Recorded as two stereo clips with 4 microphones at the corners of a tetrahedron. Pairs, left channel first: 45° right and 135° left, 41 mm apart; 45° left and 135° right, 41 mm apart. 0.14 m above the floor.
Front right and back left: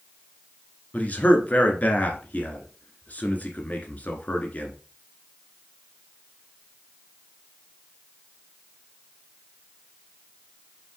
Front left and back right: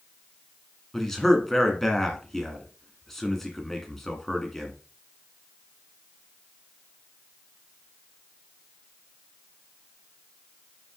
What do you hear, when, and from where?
0.9 s a man speaking: 35° right, 1.6 m